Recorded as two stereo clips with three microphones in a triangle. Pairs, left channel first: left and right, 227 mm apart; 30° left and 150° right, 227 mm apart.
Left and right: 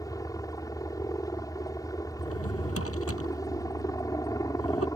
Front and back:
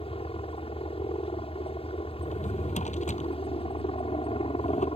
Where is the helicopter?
35° left.